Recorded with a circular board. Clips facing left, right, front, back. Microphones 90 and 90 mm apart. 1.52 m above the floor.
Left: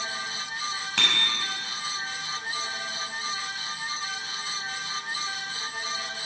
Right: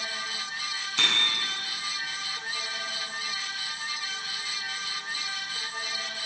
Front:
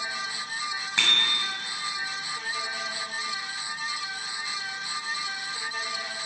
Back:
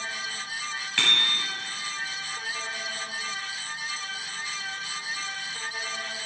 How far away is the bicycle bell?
About 7 m.